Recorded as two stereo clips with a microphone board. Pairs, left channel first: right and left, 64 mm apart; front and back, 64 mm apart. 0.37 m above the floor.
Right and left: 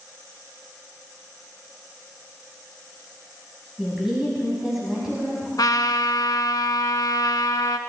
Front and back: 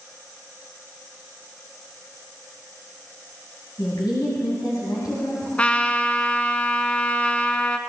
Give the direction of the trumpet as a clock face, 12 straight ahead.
2 o'clock.